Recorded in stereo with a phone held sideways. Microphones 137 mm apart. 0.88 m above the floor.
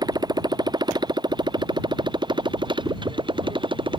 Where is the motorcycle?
30° right (ahead or behind); by 4.0 s 35° right (ahead or behind).